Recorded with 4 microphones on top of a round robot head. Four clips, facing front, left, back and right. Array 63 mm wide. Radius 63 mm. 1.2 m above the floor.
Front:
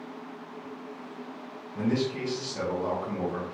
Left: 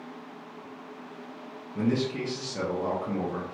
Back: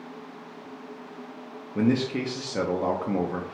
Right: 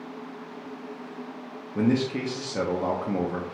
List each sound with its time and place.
1.8 s a man speaking: 150° right, 0.6 m